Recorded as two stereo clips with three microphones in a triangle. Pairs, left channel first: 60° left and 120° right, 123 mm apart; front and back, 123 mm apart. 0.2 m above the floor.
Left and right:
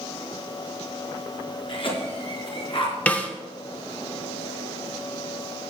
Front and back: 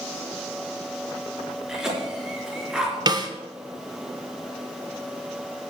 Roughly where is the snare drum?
Behind left.